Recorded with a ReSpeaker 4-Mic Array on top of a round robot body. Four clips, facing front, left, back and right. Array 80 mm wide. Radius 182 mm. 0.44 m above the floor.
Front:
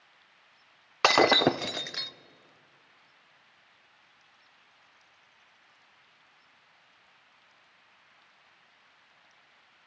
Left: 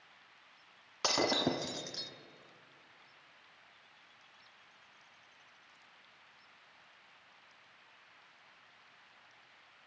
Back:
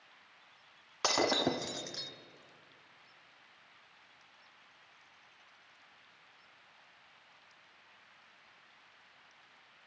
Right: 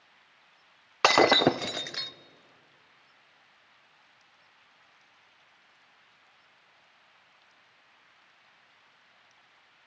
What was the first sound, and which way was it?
Breaking glass, 50° right.